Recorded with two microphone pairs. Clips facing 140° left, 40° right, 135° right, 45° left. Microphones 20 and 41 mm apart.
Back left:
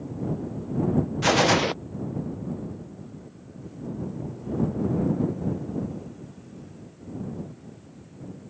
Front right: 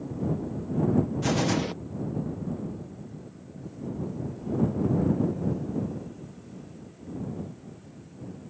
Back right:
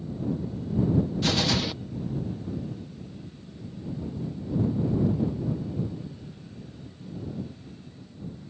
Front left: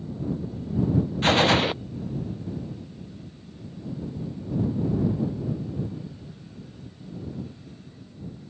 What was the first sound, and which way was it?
A gunshot, 95° left.